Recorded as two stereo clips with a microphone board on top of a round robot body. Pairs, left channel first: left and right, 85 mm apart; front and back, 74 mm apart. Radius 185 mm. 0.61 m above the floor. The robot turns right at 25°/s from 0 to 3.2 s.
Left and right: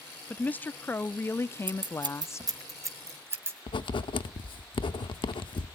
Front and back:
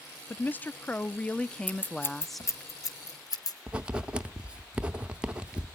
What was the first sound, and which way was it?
A woman speaking, 35° left.